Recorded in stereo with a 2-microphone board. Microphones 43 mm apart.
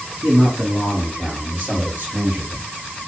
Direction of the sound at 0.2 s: 35° right (ahead or behind).